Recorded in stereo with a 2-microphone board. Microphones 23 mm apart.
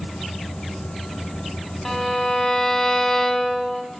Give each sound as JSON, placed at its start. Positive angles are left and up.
{"t": 1.9, "sound": "a violin", "side_deg": 10, "distance_m": 5.5}